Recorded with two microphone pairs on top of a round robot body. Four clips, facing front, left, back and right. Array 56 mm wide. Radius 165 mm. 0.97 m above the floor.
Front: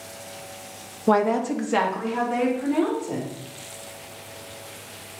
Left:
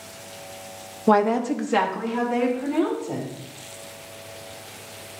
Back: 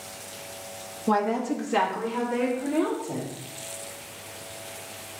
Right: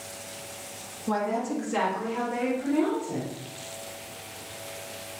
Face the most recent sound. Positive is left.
turn(degrees=40)